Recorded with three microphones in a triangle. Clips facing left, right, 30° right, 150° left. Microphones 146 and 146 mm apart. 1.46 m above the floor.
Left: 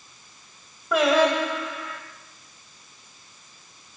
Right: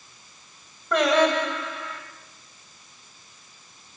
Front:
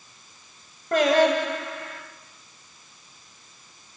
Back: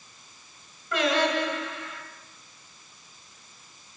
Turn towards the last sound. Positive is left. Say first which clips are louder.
# left 1 dB, front 6 dB
turn(degrees=5)